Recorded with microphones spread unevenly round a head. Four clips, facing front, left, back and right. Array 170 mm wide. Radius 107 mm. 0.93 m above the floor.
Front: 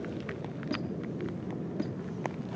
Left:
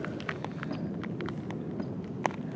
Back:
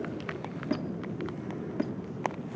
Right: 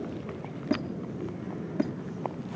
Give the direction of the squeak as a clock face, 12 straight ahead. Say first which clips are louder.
Right 8 dB, back 3 dB; 3 o'clock.